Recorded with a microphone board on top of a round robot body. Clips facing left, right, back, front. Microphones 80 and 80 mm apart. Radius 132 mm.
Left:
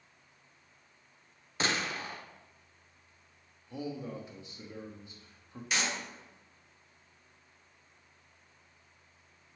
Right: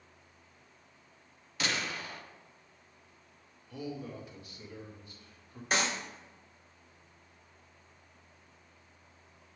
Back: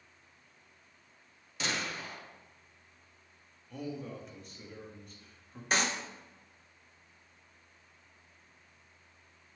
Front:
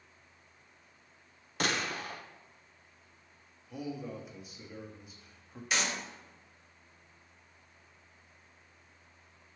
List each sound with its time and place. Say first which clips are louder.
1.6 s a gunshot: left 2 dB, front 3 dB; 30° left, 0.8 m
3.7 s a man speaking: left 2 dB, front 1 dB; 75° left, 1.2 m
5.7 s a clap: right 3 dB, back 2 dB; 135° right, 1.3 m